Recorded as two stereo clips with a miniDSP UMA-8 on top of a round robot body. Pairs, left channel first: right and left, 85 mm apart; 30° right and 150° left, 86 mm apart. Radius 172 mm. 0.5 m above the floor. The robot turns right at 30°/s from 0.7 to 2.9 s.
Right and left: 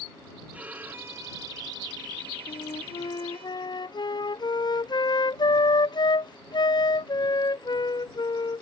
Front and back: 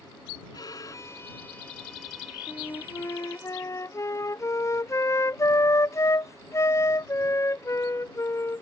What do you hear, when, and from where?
0.5 s a violin: 15° left; by 3.5 s 85° left
2.5 s a flute: 90° right; by 8.6 s 75° right